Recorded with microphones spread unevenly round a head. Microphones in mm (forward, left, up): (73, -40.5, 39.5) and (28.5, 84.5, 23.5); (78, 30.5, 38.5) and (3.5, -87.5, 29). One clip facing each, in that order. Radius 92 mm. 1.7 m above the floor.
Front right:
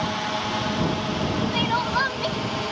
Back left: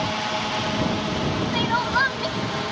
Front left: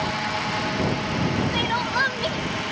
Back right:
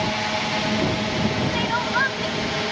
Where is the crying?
5° left.